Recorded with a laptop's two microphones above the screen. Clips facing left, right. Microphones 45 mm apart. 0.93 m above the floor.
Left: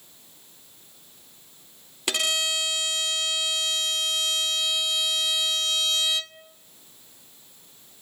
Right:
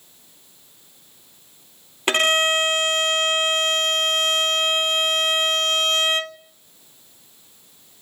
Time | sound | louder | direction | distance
2.1 | a violin | right 8 dB | 40° right (ahead or behind) | 0.6 m